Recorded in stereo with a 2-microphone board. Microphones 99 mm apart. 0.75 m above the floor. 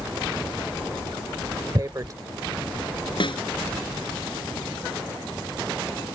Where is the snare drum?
60° left (ahead or behind).